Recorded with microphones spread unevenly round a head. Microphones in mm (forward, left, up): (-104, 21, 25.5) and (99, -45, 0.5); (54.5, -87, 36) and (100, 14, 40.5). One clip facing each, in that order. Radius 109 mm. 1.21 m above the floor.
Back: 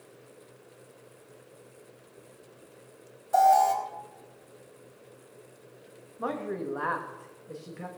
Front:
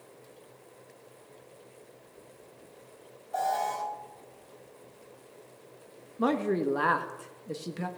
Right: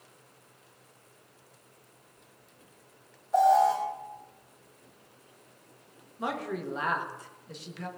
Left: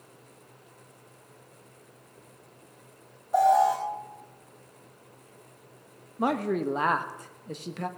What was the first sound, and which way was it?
An alarm, 150° left.